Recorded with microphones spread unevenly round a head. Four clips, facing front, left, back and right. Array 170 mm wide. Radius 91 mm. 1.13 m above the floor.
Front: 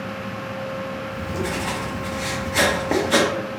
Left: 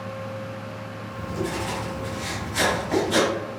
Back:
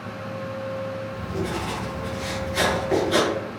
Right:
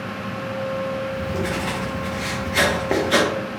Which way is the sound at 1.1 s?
50° right.